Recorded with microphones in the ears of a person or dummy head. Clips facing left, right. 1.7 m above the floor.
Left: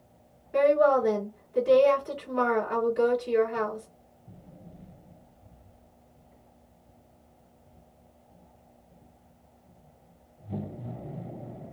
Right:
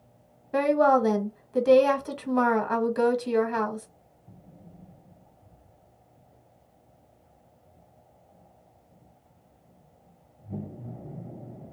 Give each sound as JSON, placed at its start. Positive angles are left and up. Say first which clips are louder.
{"t": 0.5, "sound": "a woman speaking", "louder": "even", "side_deg": -75, "distance_m": 0.8}